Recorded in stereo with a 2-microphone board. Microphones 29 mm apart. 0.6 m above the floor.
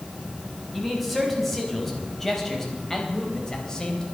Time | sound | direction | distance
0.7 | a man speaking | centre (ahead or behind) | 5 m